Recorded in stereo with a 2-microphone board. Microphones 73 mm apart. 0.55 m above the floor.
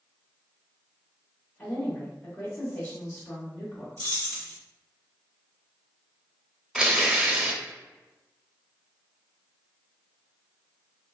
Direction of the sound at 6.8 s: 15° right (ahead or behind).